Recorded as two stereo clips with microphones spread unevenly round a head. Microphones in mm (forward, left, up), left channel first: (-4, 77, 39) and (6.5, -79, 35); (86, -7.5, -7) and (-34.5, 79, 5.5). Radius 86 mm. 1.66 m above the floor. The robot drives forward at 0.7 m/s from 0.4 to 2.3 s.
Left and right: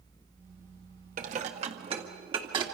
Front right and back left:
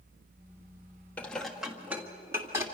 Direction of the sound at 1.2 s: 120° right.